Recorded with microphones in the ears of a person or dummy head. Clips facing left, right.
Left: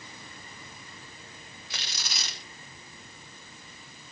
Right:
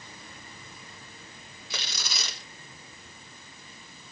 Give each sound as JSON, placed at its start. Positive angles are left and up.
{"t": 1.7, "sound": "tearing paper", "side_deg": -90, "distance_m": 2.5}